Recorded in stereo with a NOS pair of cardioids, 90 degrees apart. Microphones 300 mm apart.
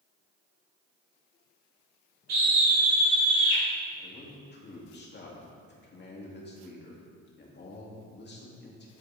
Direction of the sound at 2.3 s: 60° right.